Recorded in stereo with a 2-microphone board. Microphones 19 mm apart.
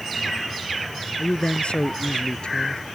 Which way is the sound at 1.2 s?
60° left (ahead or behind).